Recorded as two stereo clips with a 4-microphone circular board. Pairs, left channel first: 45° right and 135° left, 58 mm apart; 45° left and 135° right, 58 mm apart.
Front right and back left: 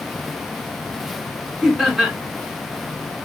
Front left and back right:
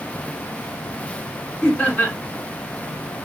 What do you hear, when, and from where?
1.6 s laughter: 50° left, 1.4 m